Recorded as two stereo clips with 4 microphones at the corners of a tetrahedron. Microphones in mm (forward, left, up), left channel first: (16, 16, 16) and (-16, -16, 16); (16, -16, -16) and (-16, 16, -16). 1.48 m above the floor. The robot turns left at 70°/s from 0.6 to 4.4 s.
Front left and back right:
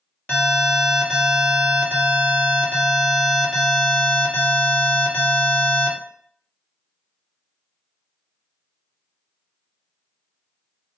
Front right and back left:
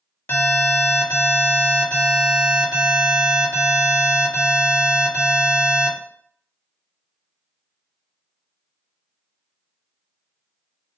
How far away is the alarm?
About 1.3 m.